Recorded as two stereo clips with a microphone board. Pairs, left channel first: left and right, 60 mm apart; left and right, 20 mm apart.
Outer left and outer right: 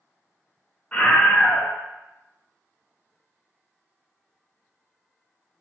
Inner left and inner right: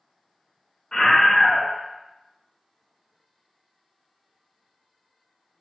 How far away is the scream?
About 1.1 m.